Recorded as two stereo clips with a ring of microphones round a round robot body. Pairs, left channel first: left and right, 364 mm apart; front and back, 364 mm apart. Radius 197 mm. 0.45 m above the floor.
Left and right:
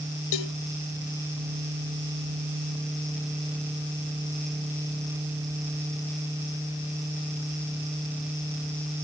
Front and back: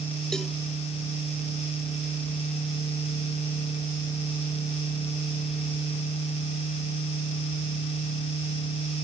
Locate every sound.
0.3 s a cowbell: 90° left